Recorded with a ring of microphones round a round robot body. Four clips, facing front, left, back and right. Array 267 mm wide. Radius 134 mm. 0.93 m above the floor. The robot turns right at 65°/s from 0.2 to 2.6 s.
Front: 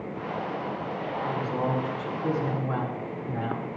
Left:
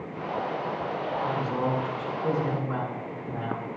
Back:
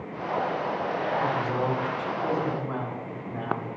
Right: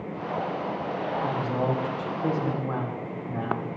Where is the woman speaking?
165° right, 3.5 m; by 3.7 s 75° right, 3.5 m.